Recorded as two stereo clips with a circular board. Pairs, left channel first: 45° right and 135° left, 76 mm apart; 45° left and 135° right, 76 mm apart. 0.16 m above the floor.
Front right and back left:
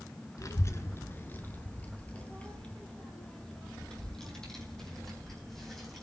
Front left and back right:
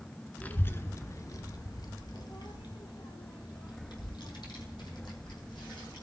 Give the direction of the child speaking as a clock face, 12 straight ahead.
1 o'clock.